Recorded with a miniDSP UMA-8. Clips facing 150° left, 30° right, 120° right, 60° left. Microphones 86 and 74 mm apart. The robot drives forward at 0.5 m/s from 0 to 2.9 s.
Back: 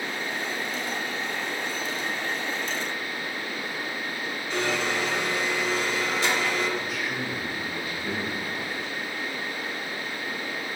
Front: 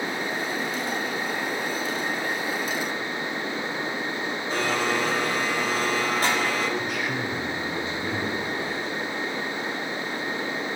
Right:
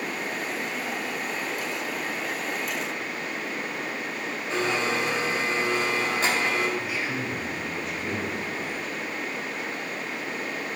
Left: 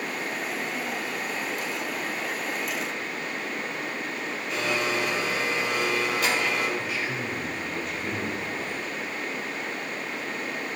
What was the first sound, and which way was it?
A blender, 65° right.